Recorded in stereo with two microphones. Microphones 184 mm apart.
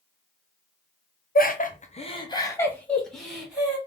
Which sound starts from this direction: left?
Laughter, at 1.4 s.